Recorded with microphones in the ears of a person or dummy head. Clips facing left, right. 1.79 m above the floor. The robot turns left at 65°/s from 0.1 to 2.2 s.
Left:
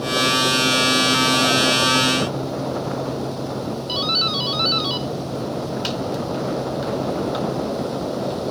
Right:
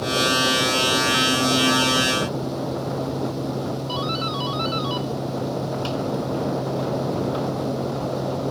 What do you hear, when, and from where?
3.9 s a doorbell: 20° left (ahead or behind)